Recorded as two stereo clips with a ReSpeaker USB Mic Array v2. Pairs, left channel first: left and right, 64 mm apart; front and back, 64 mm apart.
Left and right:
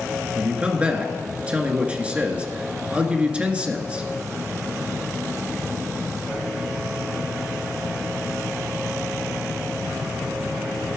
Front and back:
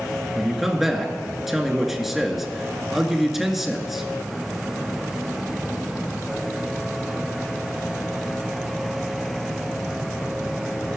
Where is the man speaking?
100° right, 1.7 m.